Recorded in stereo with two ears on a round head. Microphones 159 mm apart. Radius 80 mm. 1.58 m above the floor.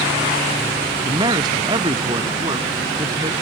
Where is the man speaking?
25° right (ahead or behind).